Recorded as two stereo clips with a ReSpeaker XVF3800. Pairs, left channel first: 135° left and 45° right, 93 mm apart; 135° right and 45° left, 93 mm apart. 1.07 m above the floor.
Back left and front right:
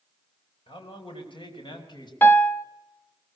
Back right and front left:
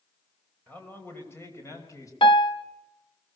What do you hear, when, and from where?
0.7 s a man speaking: 150° left, 5 m; by 2.1 s 170° left, 5.5 m
2.2 s a piano: 160° right, 0.8 m